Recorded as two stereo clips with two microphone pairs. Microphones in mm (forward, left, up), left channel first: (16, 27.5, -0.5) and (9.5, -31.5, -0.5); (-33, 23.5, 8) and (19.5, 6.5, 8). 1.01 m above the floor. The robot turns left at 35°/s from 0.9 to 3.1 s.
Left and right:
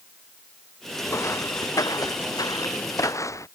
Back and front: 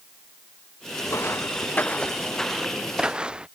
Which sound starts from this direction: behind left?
Footsteps, at 1.1 s.